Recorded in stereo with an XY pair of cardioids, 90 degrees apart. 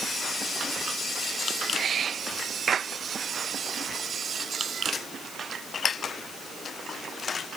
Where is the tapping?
No tapping in this recording.